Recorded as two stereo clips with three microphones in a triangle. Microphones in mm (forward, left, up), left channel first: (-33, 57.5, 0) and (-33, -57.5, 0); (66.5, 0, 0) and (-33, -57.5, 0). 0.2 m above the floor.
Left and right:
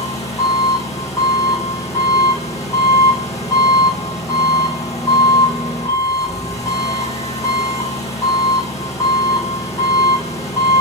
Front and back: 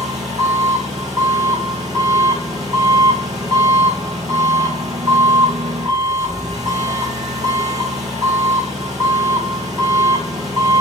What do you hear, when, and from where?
0.0 s an engine running: 150° left, 3.5 m